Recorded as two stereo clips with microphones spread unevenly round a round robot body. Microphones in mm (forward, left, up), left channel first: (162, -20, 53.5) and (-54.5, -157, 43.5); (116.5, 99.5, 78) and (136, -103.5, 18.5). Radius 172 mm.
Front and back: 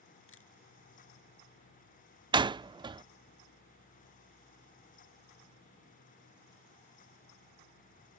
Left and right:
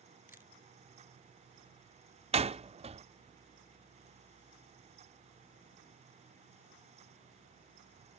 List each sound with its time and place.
0.3 s a camera shutter: 5° right
2.3 s a door slam: 85° right